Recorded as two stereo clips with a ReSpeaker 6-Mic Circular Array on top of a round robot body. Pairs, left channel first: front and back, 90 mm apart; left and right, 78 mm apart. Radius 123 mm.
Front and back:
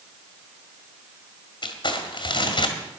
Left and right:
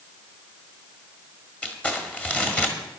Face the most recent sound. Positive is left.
turn(degrees=20)